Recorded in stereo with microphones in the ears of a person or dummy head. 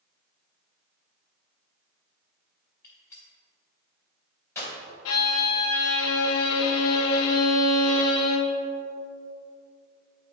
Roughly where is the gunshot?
Centre.